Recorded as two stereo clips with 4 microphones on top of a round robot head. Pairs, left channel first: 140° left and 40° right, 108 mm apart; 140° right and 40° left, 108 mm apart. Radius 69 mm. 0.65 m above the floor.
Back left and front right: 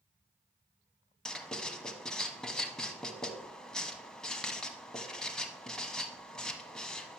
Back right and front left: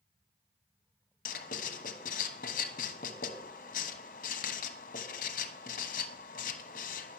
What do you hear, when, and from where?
1.2 s writing: 135° right, 1.1 m